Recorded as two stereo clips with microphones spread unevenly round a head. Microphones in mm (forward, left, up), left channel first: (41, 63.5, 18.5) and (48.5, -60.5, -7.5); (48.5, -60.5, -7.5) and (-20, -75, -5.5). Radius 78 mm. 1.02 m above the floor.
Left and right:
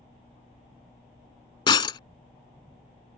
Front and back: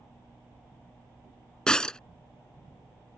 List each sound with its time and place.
1.7 s breaking glass: 90° left